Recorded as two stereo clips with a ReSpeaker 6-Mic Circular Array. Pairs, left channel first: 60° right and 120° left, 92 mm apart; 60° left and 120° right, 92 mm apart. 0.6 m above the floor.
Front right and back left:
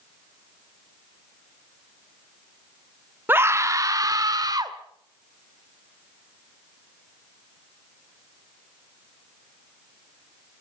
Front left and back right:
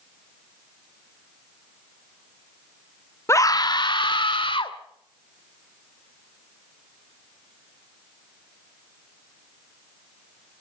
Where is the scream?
75° left, 0.6 m; by 4.8 s 80° left, 1.9 m.